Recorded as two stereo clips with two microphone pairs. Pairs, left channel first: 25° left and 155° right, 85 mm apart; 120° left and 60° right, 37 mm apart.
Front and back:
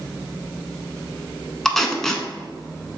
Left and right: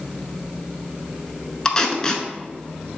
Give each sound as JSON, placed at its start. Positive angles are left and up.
{"t": 1.6, "sound": "tape being pulled", "azimuth_deg": 100, "distance_m": 0.6}